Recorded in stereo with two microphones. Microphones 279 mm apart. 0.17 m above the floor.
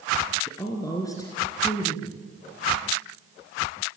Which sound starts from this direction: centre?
A woman speaking, at 0.3 s.